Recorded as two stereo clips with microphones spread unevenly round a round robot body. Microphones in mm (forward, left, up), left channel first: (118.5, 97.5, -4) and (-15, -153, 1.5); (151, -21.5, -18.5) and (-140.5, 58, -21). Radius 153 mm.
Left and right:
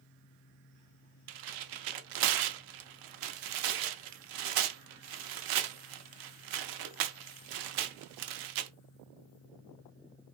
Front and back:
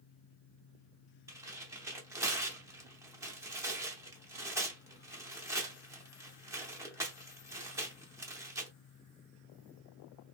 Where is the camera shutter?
No camera shutter in this recording.